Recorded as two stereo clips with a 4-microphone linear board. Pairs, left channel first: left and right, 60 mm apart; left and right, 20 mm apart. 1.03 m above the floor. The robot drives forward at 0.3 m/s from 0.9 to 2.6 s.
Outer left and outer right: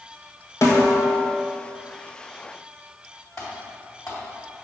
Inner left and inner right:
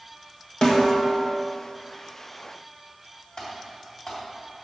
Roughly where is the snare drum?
Left.